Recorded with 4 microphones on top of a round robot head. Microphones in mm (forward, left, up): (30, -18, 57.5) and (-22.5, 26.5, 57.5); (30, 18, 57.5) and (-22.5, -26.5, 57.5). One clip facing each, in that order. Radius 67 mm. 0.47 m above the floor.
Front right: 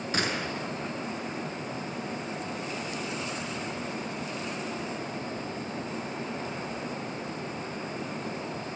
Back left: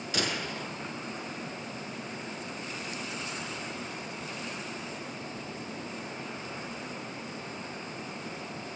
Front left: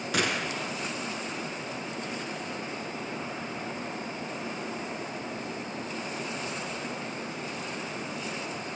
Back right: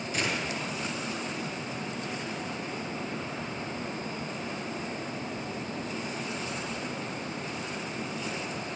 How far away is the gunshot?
About 6.5 m.